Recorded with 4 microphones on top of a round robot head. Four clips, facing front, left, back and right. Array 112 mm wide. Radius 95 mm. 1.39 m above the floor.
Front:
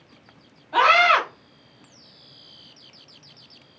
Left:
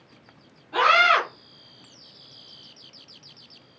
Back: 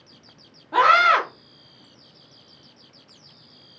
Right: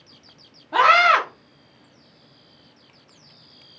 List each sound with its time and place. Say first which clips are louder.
0.7 s a scream: right 3 dB, back 1 dB; 150° right, 1.5 m